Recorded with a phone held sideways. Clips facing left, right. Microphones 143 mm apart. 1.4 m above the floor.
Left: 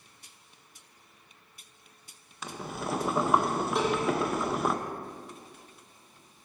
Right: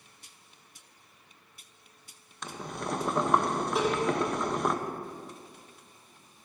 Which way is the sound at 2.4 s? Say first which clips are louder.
Left 1 dB; 5° left (ahead or behind).